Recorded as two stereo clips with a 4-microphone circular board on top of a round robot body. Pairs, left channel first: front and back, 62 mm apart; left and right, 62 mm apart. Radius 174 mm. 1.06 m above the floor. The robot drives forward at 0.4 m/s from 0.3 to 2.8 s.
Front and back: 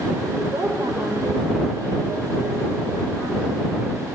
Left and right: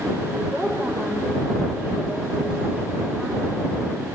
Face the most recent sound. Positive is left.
turn(degrees=-160)